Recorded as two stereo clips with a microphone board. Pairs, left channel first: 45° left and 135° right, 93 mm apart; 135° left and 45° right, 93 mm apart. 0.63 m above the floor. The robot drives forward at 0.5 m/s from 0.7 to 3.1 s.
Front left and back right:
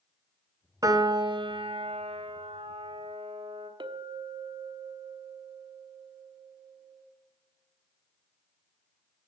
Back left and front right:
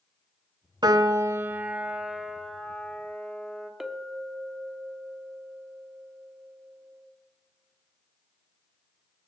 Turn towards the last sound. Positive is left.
turn(degrees=-130)